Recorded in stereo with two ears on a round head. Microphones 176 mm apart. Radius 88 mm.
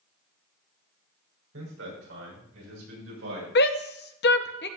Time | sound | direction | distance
1.5 | a man speaking | 75° right (ahead or behind) | 6 m
3.5 | a shout | 55° left (ahead or behind) | 0.9 m